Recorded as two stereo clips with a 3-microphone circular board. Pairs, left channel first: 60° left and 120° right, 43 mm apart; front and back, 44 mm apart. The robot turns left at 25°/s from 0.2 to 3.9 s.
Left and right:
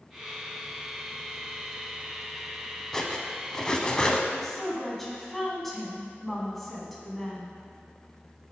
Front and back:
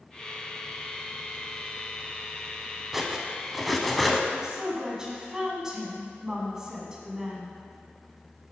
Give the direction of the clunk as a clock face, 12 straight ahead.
No clunk in this recording.